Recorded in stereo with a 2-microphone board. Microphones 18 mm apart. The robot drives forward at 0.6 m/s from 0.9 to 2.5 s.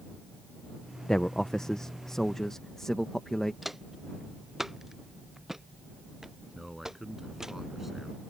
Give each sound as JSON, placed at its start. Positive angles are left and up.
{"t": 1.1, "sound": "a man speaking", "side_deg": 40}
{"t": 3.6, "sound": "footsteps", "side_deg": -5}
{"t": 6.5, "sound": "a man speaking", "side_deg": -10}